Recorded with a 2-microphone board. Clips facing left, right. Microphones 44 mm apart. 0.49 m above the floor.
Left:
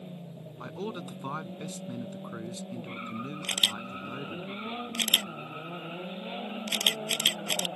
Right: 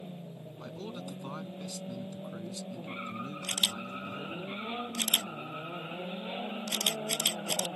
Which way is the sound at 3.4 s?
45° left (ahead or behind).